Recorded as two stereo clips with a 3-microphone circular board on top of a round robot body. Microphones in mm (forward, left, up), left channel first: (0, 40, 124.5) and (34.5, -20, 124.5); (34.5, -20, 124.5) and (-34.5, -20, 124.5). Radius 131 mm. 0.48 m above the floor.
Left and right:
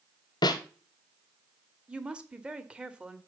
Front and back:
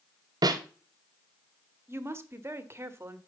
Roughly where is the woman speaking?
Behind right.